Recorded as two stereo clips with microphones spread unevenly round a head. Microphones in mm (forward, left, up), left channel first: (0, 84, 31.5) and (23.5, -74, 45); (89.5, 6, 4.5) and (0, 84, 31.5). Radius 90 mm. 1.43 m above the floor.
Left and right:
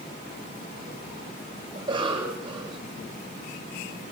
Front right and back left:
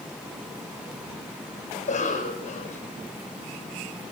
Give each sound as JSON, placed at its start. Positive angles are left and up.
{"t": 1.8, "sound": "a cough", "azimuth_deg": -20, "distance_m": 9.5}